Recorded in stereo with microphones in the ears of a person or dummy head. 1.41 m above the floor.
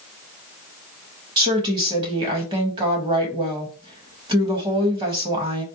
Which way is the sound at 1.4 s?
25° right (ahead or behind).